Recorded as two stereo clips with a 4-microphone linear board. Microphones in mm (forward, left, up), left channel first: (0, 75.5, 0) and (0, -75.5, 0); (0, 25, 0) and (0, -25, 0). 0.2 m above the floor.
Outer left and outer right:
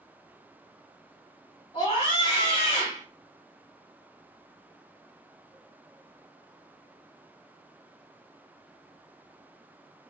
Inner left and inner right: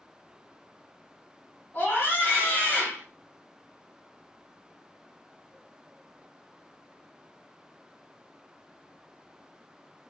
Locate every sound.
1.7 s a scream: 35° left (ahead or behind), 1.3 m